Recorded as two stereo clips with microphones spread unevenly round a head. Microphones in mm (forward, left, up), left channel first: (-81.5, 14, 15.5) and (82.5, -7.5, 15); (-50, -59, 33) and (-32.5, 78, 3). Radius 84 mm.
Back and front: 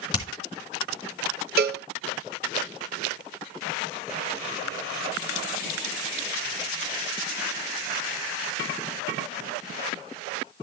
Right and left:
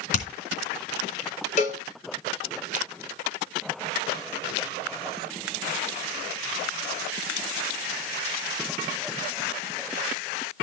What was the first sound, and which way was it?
Hammering, 120° right.